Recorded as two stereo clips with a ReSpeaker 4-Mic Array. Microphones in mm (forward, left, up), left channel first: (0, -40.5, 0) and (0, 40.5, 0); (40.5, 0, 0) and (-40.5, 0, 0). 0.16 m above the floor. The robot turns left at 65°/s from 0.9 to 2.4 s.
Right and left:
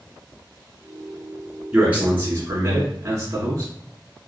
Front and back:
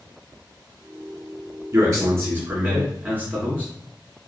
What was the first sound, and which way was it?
A man speaking, 170° left.